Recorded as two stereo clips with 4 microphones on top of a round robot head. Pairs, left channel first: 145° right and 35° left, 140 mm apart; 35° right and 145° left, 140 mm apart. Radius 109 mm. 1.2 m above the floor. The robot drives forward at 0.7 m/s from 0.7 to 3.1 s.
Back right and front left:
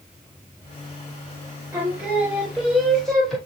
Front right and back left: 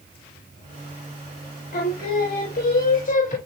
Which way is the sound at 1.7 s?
40° right.